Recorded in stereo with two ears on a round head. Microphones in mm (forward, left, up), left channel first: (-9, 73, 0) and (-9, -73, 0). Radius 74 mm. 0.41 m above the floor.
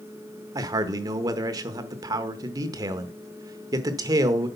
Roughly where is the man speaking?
Right.